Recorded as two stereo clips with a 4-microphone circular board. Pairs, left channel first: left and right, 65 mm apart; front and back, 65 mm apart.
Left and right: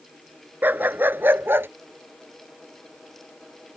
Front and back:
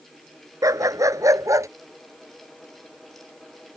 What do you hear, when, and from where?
0.6 s a dog barking: 150° right; by 1.7 s 145° right